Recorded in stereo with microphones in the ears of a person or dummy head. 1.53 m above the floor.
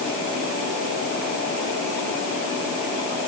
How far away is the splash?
No splash in this recording.